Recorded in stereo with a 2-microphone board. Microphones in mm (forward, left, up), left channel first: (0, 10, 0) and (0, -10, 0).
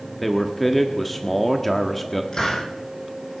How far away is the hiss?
About 6.5 m.